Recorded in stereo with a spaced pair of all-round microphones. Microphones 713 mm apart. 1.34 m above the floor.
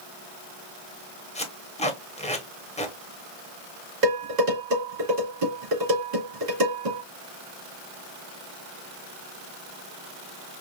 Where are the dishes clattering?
70° right (ahead or behind), 2 m.